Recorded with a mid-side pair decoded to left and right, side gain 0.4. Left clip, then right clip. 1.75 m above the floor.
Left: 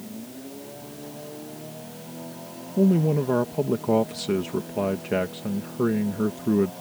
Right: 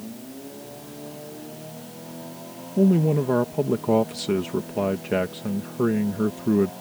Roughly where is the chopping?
No chopping in this recording.